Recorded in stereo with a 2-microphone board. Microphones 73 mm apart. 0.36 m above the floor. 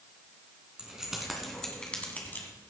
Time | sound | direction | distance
0.8 | keys jangling | 10° right (ahead or behind) | 2.5 m